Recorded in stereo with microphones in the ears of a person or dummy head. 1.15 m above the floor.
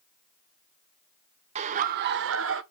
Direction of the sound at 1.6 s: 35° right (ahead or behind).